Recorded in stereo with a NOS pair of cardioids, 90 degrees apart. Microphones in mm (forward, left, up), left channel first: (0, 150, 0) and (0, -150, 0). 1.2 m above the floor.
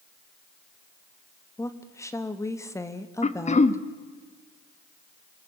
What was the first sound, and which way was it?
A woman speaking, 10° left.